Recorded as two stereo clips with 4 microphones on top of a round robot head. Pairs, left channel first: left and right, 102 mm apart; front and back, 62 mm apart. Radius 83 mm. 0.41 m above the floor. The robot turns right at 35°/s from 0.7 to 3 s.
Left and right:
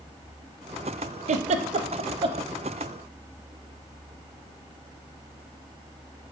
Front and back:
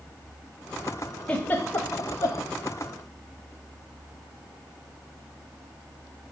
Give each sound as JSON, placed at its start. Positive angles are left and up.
{"t": 1.3, "sound": "a giggle", "azimuth_deg": -80, "distance_m": 0.7}